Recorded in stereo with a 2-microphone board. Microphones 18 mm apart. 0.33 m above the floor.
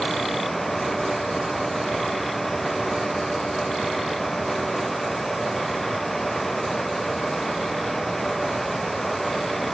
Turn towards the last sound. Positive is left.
No sound to turn to.